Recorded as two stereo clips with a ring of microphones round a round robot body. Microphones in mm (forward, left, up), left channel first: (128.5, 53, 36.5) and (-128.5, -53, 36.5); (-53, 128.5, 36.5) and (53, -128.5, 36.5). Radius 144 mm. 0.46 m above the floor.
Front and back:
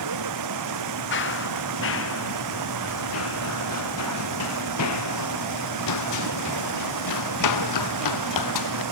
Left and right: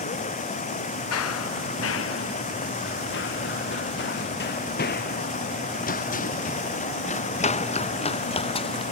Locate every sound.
0.0 s running water: straight behind
1.1 s running footsteps: 75° left; by 8.8 s 40° left